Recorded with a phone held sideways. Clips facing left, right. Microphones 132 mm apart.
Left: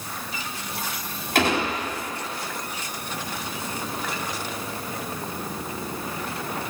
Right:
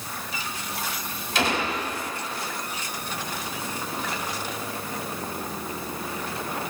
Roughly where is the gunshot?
Left.